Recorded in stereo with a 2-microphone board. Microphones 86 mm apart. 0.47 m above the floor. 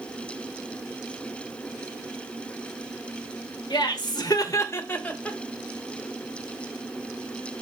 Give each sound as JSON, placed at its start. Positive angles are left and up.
{"t": 3.7, "sound": "laughter", "side_deg": 55, "distance_m": 1.3}